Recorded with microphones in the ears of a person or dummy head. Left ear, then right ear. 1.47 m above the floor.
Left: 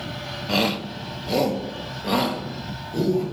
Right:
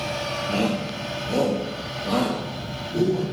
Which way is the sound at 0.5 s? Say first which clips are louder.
Left 6 dB; 40° left (ahead or behind).